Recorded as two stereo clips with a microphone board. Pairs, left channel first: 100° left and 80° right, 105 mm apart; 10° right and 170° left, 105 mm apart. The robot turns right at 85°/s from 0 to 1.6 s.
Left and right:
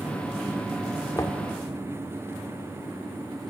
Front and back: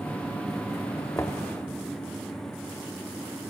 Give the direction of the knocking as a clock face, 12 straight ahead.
11 o'clock.